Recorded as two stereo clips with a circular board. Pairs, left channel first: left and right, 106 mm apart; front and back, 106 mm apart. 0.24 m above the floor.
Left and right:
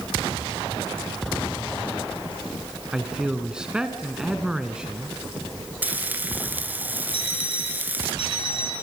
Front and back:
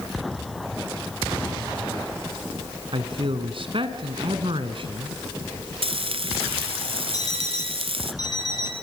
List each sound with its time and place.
2.9 s a man speaking: 170° right, 2 m
5.8 s frying: 165° right, 1.2 m
7.1 s an alarm clock: 50° right, 7.5 m